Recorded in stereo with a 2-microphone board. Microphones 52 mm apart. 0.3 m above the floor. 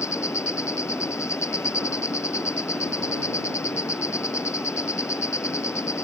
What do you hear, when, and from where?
0.0 s an insect: 75° left (ahead or behind)